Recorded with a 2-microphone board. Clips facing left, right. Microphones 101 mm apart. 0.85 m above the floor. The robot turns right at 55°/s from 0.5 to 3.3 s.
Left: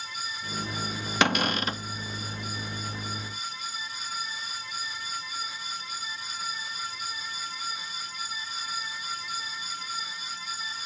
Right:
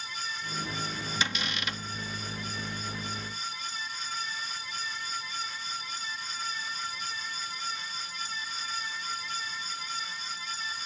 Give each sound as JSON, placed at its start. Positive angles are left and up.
{"t": 1.2, "sound": "a cupboard door", "azimuth_deg": 115}